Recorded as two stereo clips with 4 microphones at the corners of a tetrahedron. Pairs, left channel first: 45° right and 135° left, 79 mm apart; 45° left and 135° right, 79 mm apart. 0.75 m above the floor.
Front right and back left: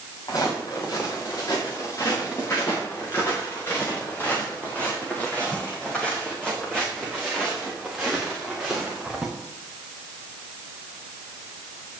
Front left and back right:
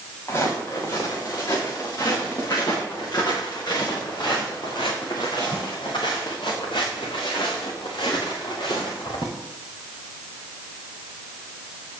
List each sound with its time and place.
0.3 s footsteps: 5° right, 5.5 m; by 9.3 s 50° left, 5.5 m